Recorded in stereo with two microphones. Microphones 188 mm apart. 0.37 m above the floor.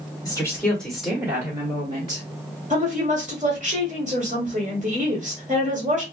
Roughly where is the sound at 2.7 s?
Right.